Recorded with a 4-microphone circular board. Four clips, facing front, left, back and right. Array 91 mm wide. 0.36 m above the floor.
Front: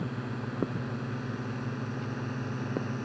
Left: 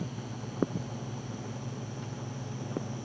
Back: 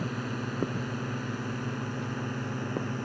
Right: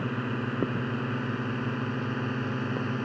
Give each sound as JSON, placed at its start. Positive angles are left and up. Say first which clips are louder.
{"t": 0.0, "sound": "a drone", "louder": "right 9 dB, back 2 dB", "azimuth_deg": -100}